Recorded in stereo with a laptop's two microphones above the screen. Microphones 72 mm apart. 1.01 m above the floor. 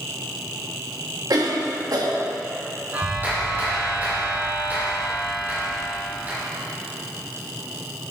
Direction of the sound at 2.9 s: 30° right (ahead or behind).